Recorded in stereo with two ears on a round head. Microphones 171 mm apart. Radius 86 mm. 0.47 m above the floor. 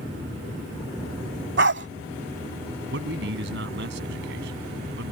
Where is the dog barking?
60° right (ahead or behind).